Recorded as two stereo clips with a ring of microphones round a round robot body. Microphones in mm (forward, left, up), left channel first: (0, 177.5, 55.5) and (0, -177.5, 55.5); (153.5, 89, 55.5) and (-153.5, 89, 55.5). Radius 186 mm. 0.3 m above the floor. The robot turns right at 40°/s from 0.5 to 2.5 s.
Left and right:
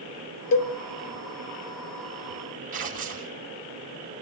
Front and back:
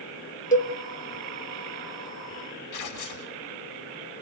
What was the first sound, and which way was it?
A cowbell, 60° left.